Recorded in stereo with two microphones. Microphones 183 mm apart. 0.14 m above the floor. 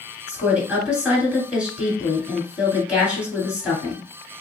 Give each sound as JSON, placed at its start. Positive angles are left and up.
{"t": 0.3, "sound": "a woman speaking", "side_deg": -5, "distance_m": 1.5}